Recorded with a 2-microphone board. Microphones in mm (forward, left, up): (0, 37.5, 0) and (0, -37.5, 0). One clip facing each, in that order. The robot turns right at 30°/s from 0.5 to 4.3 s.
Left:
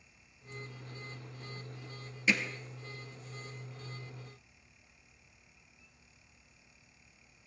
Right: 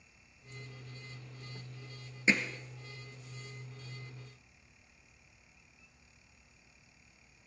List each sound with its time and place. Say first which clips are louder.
2.3 s hammering: right 1 dB; 25° right (ahead or behind), 1.6 m